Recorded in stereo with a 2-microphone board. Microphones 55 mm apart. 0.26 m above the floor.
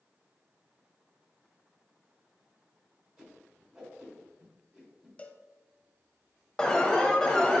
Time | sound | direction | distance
3.2 | a whoosh | 15° right (ahead or behind) | 3 m
5.2 | a cowbell | 25° left (ahead or behind) | 0.5 m
6.6 | an alarm | 15° left (ahead or behind) | 1.0 m